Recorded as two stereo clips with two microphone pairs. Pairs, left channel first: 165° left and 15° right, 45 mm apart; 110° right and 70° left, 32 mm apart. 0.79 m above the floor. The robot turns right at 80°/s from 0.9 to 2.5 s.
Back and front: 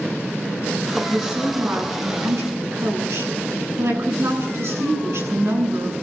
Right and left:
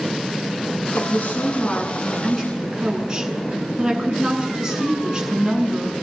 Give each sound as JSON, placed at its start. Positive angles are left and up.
{"t": 0.9, "sound": "a woman speaking", "azimuth_deg": -120, "distance_m": 9.5}